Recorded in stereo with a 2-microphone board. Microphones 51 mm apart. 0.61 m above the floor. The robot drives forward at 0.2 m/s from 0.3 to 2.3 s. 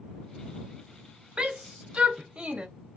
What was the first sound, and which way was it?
A shout, 20° right (ahead or behind).